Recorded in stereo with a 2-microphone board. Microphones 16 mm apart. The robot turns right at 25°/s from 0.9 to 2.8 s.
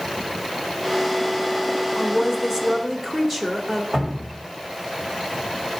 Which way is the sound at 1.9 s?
20° right (ahead or behind).